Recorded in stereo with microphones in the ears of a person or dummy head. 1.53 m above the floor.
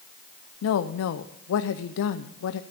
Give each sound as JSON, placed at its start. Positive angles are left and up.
{"t": 0.6, "sound": "a woman speaking", "side_deg": 75, "distance_m": 0.5}